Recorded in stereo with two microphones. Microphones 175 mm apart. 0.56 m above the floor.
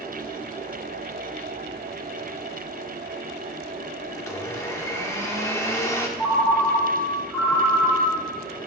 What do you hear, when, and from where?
4.2 s a blender: 15° left (ahead or behind), 0.9 m
6.2 s a ringtone: 10° left (ahead or behind), 2.5 m